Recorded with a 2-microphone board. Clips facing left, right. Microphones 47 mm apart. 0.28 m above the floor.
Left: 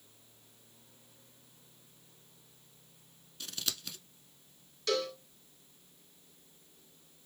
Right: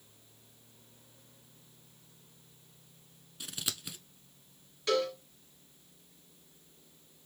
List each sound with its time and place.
3.4 s scissors: 15° right (ahead or behind), 0.7 m
4.9 s a cowbell: 25° right (ahead or behind), 2 m